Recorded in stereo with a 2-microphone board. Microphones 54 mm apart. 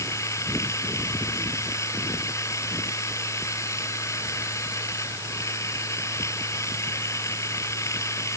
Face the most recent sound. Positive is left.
turn(degrees=70)  # may be behind; listen again after turning